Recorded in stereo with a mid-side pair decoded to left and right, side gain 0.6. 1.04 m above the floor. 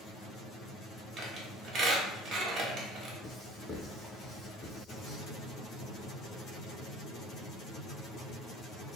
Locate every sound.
1.2 s a squeak: 45° right, 1.0 m
3.2 s writing: 10° left, 1.3 m